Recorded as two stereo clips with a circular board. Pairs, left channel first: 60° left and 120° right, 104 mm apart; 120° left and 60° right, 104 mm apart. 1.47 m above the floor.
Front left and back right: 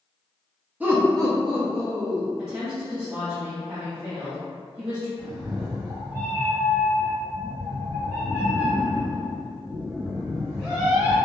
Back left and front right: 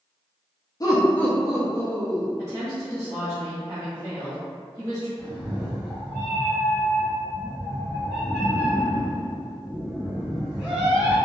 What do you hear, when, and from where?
0.8 s laughter: 165° left, 0.5 m; by 2.3 s 110° right, 0.7 m
2.4 s a woman speaking: straight behind, 0.7 m
5.2 s a cat meowing: 125° right, 1.3 m